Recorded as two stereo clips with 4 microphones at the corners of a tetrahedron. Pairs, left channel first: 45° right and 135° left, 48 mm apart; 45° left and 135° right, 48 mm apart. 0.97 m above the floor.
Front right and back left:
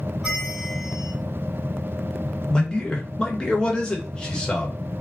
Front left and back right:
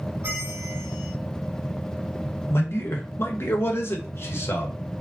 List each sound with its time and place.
0.2 s a bell: 145° right, 1.8 m
2.5 s a man speaking: 25° left, 0.9 m